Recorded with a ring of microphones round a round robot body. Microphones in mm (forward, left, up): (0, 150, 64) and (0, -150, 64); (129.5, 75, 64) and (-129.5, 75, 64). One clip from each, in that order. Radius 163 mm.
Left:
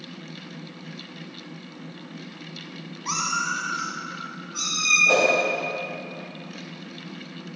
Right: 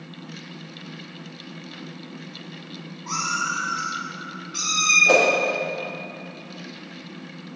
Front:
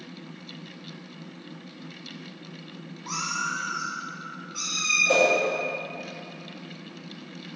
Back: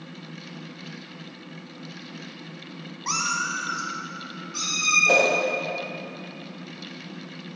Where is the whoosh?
140° right, 1.0 m.